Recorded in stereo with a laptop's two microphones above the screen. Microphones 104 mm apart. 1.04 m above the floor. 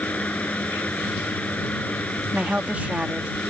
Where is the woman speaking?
15° right (ahead or behind).